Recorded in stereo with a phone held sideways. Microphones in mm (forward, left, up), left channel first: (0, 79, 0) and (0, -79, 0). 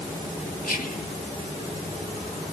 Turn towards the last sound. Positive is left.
turn(degrees=65)  # may be behind; listen again after turning